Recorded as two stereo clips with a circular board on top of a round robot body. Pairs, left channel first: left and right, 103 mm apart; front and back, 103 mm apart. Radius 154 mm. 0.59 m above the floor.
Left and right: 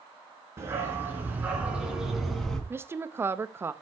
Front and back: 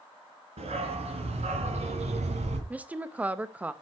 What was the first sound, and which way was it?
A dog barking, 155° right.